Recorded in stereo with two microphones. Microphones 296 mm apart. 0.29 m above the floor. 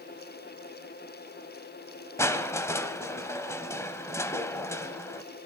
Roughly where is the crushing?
Centre.